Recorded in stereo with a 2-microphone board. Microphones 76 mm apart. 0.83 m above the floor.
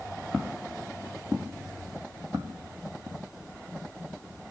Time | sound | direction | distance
0.3 | footsteps | 10° right (ahead or behind) | 1.1 m